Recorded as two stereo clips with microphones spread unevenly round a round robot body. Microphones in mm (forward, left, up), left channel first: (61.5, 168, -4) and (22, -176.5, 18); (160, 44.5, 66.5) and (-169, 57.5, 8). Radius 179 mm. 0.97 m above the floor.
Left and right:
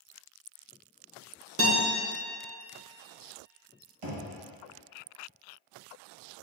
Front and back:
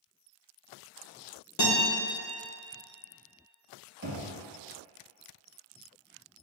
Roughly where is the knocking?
Behind right.